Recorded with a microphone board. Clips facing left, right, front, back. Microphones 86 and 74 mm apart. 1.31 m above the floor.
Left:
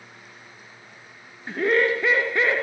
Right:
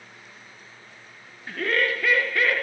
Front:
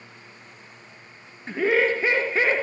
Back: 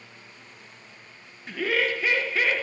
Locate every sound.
1.5 s laughter: 40° left, 0.5 m